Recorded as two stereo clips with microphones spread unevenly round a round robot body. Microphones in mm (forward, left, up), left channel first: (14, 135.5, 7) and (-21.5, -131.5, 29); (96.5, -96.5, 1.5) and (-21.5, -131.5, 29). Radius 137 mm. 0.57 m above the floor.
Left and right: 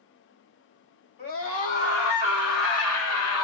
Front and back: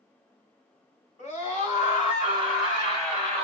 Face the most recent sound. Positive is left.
turn(degrees=85)